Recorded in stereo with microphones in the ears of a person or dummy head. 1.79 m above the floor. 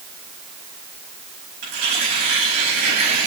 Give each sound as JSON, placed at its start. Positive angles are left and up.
{"t": 1.6, "sound": "tearing paper", "side_deg": -50, "distance_m": 5.5}